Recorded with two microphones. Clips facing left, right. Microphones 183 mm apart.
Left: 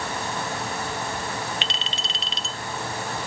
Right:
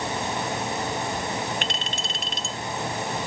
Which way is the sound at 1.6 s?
50° right (ahead or behind).